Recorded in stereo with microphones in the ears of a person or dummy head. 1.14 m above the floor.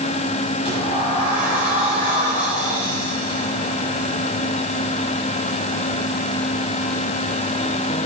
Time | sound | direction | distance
0.7 | a sliding door | 20° left (ahead or behind) | 5 m